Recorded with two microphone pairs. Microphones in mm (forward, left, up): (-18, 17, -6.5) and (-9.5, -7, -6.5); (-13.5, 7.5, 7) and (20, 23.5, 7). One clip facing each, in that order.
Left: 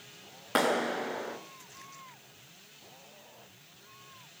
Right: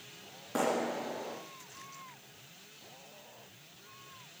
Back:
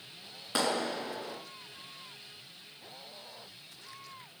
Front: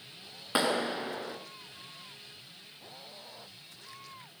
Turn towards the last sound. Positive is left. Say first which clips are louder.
# left 4 dB, front 2 dB
turn(degrees=95)